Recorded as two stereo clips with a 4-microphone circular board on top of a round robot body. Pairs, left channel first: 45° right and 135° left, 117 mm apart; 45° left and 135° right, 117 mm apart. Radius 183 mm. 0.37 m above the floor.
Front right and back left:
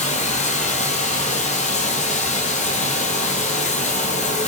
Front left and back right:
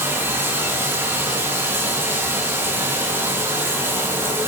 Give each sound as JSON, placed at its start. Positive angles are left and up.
{"t": 0.0, "sound": "running water", "azimuth_deg": -65, "distance_m": 1.4}